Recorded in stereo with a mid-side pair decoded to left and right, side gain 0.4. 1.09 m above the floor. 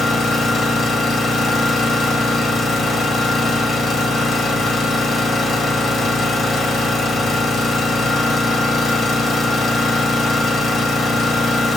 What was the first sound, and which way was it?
An engine running, 60° left.